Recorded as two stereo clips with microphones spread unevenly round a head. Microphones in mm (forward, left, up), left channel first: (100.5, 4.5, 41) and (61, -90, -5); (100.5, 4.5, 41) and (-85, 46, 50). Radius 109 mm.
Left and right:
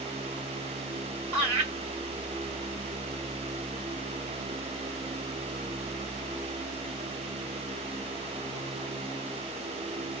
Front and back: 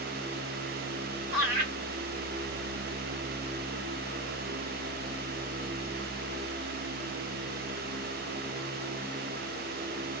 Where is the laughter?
130° right, 1.8 m.